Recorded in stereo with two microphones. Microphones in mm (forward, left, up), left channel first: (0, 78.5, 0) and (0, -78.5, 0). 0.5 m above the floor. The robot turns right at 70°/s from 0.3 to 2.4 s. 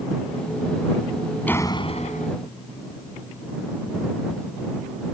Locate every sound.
1.5 s a door slam: 10° left; by 2.3 s 70° left